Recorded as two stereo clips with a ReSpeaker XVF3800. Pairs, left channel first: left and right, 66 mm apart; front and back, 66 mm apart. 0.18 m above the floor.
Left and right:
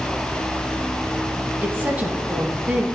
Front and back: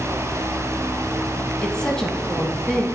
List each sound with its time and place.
1.6 s a woman speaking: 70° right, 1.1 m